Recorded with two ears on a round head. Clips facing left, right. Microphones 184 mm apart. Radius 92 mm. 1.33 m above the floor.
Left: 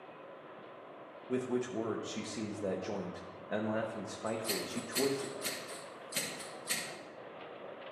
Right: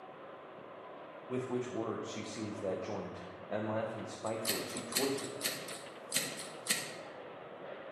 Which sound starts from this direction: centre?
A man speaking, at 1.3 s.